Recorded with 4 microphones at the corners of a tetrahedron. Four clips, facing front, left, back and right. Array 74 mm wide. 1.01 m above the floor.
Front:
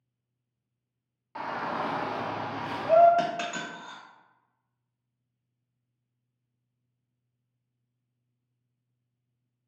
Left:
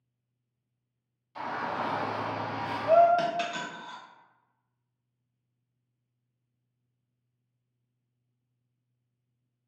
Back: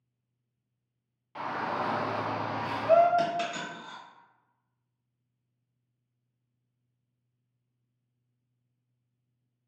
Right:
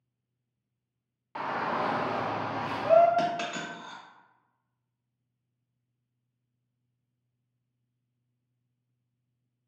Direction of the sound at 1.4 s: 75° right.